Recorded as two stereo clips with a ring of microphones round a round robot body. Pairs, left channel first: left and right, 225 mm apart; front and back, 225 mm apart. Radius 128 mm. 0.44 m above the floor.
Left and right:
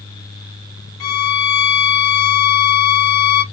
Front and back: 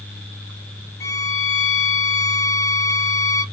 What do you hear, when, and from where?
1.0 s a violin: 80° left, 0.8 m